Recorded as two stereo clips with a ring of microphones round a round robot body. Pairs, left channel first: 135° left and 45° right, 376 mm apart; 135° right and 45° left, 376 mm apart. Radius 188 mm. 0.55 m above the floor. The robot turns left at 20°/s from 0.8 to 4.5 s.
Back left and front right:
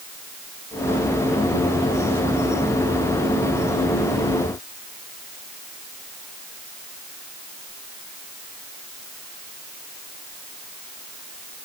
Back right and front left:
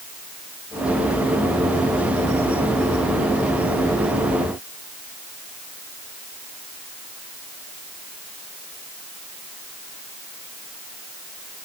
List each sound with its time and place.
Only background noise.